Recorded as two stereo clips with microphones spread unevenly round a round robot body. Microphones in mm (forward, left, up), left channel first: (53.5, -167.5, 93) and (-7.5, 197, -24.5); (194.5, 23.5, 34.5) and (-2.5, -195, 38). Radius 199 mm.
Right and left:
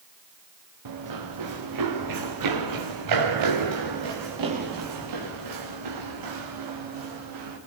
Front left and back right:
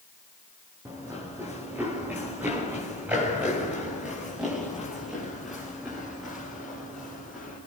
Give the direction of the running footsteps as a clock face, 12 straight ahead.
7 o'clock.